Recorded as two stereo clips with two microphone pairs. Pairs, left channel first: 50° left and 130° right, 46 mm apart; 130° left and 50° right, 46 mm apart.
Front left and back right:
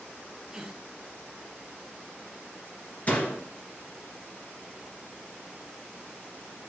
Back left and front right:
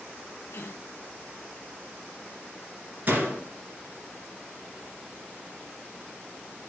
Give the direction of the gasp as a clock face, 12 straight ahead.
7 o'clock.